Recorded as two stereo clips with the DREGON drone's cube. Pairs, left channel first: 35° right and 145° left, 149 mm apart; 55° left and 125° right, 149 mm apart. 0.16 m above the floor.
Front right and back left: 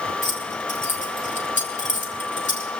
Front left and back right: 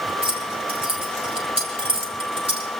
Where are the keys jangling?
70° right, 3.5 m.